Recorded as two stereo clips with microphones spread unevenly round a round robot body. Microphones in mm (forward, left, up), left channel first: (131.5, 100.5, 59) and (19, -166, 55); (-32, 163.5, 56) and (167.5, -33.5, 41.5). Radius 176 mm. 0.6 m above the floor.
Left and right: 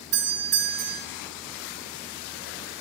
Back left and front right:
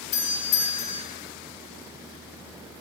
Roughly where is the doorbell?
Behind.